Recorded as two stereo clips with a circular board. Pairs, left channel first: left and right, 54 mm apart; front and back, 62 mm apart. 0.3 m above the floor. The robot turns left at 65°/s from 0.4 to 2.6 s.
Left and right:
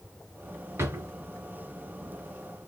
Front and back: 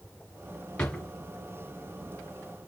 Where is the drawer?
70° right, 1.6 m; by 1.1 s 90° right, 1.6 m.